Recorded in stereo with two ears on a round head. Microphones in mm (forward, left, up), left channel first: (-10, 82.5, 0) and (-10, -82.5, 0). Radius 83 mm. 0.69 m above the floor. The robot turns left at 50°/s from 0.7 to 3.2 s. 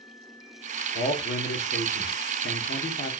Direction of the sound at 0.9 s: 140° left.